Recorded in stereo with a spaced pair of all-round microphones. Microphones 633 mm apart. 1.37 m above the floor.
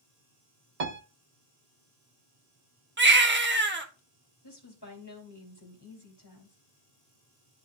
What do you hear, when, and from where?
0.8 s a piano: 70° right (ahead or behind), 1.1 m
3.0 s a baby crying: 15° right (ahead or behind), 1.2 m
4.4 s a woman speaking: 35° left (ahead or behind), 2.5 m